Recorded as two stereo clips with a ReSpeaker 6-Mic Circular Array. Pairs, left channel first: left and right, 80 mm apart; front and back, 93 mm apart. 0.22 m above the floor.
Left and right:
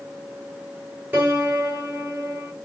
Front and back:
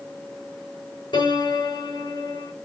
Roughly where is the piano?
Ahead right.